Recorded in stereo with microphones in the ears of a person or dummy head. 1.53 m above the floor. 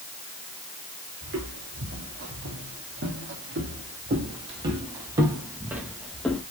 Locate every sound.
1.2 s footsteps: 60° right (ahead or behind), 3.5 m; by 6.4 s centre (ahead or behind), 1.8 m